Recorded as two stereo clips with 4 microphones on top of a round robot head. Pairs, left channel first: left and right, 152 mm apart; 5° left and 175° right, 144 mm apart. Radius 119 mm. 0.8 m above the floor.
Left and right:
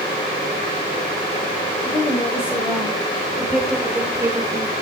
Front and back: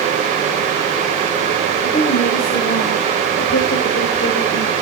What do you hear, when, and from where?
1.8 s a woman speaking: 20° left, 4.5 m; by 4.7 s 25° right, 3 m